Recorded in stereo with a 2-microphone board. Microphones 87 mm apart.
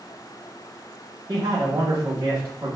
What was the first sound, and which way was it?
A man speaking, 40° right (ahead or behind).